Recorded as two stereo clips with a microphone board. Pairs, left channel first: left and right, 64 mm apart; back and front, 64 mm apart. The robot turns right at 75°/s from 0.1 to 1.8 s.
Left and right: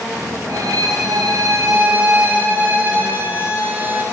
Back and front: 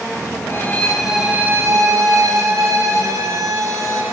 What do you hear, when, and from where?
0.5 s a violin: 130° right, 0.7 m; by 4.0 s 35° right, 0.7 m